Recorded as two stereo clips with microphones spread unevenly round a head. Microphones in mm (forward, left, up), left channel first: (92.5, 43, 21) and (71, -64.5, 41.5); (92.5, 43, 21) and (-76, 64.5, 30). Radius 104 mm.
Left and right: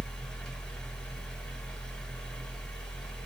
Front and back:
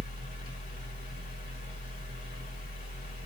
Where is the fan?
5° left, 1.5 m.